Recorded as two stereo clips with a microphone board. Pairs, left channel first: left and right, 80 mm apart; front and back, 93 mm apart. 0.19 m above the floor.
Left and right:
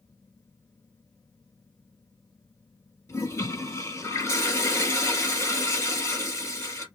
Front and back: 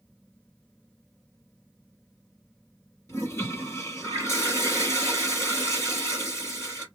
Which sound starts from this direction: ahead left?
A toilet flushing, at 3.1 s.